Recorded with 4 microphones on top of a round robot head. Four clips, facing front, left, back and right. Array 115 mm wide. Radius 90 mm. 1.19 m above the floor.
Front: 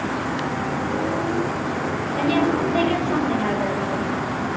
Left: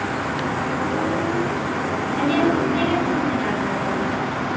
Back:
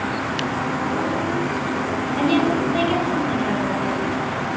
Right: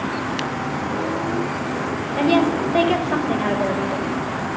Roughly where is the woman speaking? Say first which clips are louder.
Right 2 dB, back 1 dB; right.